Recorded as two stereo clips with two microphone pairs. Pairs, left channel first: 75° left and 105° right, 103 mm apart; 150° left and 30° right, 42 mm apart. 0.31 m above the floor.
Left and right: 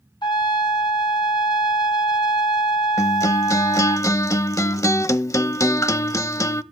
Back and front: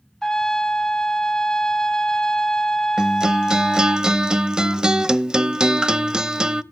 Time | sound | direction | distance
0.2 | a trumpet | 75° left | 0.9 m
3.0 | a guitar | 25° left | 0.6 m